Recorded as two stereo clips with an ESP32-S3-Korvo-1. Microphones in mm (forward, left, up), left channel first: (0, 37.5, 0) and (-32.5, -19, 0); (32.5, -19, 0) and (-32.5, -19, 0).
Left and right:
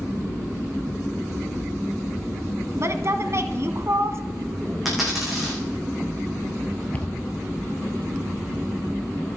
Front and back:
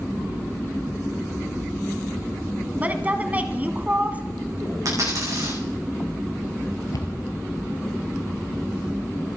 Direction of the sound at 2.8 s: 125° right.